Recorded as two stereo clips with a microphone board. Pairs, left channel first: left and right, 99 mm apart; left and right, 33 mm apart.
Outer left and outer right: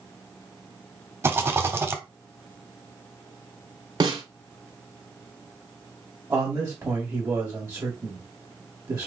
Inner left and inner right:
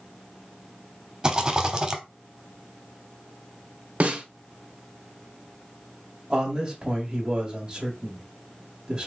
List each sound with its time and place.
1.2 s a rattle: 25° right (ahead or behind), 0.9 m
4.0 s a snare drum: 55° right (ahead or behind), 1.2 m
6.3 s a man speaking: 30° right (ahead or behind), 1.4 m